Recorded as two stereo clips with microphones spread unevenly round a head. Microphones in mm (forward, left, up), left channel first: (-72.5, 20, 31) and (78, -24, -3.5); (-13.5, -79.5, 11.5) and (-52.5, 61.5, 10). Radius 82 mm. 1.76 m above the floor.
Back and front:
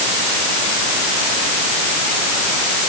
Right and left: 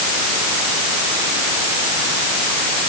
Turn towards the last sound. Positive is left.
No sound to turn to.